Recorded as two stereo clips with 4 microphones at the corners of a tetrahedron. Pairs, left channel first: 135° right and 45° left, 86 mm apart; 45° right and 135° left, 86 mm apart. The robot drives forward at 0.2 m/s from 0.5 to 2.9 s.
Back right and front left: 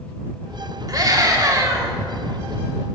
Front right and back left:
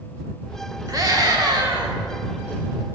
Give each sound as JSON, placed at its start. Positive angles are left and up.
{"t": 0.9, "sound": "a scream", "azimuth_deg": 90, "distance_m": 1.5}